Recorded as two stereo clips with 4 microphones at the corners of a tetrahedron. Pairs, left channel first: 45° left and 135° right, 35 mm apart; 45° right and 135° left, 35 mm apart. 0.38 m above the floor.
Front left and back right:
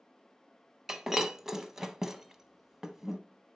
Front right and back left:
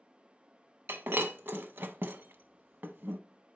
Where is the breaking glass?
145° left, 0.5 m.